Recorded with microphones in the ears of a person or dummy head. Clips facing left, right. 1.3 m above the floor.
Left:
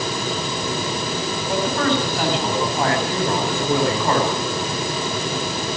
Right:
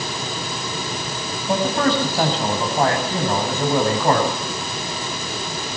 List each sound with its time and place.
1.5 s a man speaking: 35° right (ahead or behind), 7 m